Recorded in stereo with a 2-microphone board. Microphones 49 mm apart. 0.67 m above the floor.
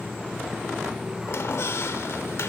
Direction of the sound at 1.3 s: 60° left (ahead or behind).